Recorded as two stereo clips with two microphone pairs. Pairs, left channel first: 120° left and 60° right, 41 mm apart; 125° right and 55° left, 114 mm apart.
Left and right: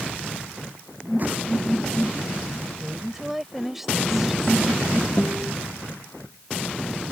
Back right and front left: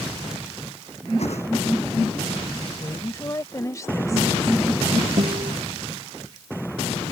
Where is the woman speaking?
135° right.